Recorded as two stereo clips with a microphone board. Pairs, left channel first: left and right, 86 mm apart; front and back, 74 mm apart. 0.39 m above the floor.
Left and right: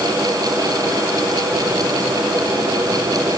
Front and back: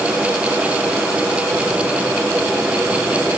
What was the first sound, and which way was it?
Only background noise.